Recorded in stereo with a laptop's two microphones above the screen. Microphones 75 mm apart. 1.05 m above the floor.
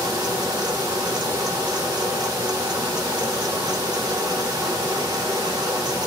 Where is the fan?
65° right (ahead or behind), 1.4 m.